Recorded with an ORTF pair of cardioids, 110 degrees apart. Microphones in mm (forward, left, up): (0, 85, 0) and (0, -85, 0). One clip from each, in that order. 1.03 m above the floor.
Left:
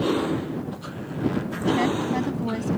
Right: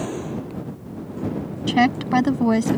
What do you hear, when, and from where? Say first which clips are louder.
1.7 s a woman speaking: right 5 dB; 60° right